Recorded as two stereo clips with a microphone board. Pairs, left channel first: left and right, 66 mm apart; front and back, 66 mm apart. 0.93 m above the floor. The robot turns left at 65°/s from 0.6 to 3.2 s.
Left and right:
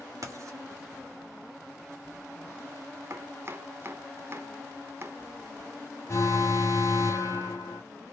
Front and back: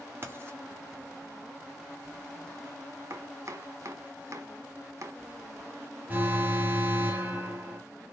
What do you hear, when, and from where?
0.2 s writing: 125° right, 2.5 m
3.1 s chopping: 135° right, 1.2 m; by 5.2 s 140° right, 1.2 m
6.1 s an alarm: 120° left, 2 m